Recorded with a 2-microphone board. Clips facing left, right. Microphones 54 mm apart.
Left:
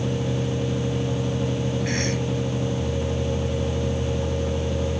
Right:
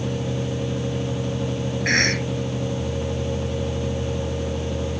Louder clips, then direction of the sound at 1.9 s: Right 5 dB; 70° right (ahead or behind).